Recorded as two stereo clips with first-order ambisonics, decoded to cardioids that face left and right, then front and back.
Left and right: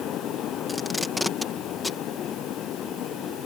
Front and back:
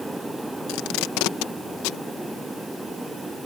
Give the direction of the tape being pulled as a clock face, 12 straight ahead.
12 o'clock.